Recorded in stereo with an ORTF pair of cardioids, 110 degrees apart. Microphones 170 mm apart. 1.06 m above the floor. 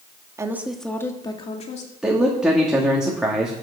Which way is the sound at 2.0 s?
5° right.